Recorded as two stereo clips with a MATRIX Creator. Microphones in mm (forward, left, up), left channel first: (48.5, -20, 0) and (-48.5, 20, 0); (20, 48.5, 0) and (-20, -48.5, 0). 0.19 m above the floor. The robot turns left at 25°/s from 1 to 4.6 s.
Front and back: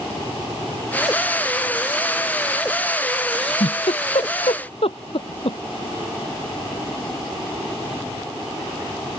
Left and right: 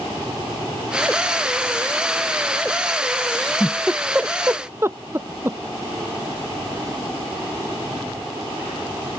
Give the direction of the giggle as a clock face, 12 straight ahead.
12 o'clock.